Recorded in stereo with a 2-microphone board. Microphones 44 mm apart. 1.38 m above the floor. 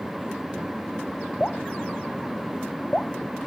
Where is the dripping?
20° left (ahead or behind).